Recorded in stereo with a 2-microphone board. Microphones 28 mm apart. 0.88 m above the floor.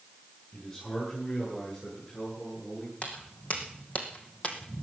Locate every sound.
0.5 s a man speaking: 25° left (ahead or behind), 10 m; by 2.9 s 35° left (ahead or behind), 11.5 m
3.0 s footsteps: 50° left (ahead or behind), 3.5 m; by 4.8 s 40° left (ahead or behind), 1.8 m